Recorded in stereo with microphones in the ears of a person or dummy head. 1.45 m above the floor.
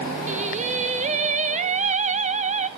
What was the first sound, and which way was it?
Singing, 35° right (ahead or behind).